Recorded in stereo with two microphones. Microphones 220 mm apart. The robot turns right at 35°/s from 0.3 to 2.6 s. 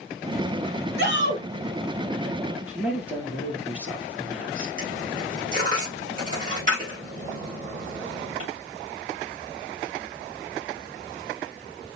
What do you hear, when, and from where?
1.0 s a shout: 50° right (ahead or behind), 3 m; by 1.4 s 60° right (ahead or behind), 3 m
2.7 s a man speaking: 5° right (ahead or behind), 4 m
4.8 s a dropped coin: 40° right (ahead or behind), 5 m